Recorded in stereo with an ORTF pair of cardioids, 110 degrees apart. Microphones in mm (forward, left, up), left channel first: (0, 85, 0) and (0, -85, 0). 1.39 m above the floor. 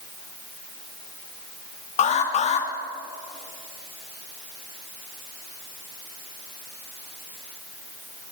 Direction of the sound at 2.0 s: 45° left.